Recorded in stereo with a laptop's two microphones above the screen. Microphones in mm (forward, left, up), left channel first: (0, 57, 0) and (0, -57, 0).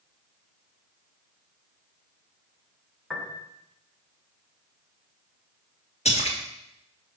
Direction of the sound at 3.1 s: Centre (ahead or behind).